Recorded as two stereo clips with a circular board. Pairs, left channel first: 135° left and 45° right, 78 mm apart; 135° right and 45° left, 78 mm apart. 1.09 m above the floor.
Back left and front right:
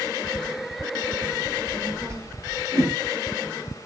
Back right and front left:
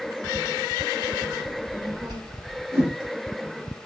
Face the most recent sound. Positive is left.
turn(degrees=-10)